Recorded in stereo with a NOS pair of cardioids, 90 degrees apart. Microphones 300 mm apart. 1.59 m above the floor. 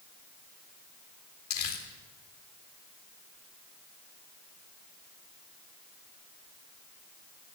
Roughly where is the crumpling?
Ahead left.